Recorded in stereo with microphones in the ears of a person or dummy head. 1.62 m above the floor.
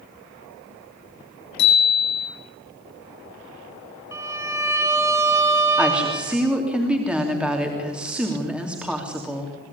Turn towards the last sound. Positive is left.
turn(degrees=-5)  # may be behind; listen again after turning